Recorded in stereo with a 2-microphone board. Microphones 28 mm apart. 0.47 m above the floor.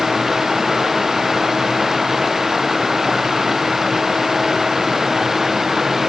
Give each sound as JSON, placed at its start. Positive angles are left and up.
{"t": 0.0, "sound": "running water", "side_deg": -15}